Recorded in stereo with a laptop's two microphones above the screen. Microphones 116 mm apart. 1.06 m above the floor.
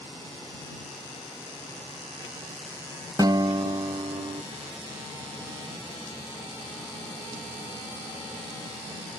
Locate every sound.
3.2 s a guitar: 35° right (ahead or behind)